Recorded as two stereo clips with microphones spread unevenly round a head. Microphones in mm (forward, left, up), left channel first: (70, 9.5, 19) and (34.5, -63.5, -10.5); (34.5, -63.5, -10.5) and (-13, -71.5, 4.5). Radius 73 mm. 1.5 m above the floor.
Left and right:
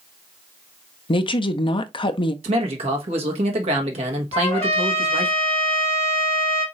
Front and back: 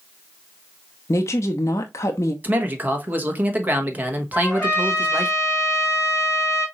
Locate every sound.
1.1 s a woman speaking: 40° left, 0.7 m
2.4 s a man speaking: 130° right, 1.3 m
4.3 s a trumpet: 95° left, 2.5 m